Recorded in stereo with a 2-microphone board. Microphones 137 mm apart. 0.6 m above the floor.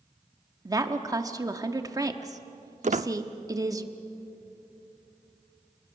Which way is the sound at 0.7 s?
25° right (ahead or behind).